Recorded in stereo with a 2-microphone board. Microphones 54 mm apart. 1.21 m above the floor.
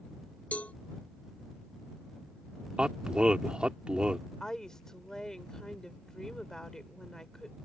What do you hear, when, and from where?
0.5 s a cowbell: 30° left (ahead or behind)
2.8 s a man speaking: 20° right (ahead or behind)
4.4 s a woman speaking: 15° left (ahead or behind)